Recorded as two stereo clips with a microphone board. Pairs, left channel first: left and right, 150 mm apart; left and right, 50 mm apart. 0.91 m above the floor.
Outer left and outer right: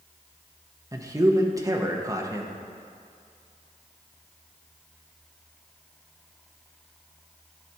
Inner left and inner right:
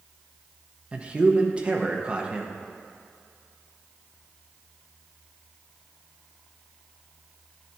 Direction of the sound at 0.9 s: 20° right (ahead or behind).